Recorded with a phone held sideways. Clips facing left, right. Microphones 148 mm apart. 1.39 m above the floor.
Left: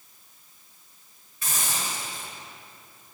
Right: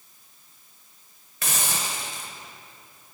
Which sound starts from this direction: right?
A hiss, at 1.4 s.